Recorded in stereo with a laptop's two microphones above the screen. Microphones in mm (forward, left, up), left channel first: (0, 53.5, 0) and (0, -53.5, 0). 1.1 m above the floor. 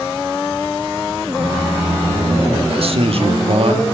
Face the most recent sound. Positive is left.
turn(degrees=-60)  # may be behind; listen again after turning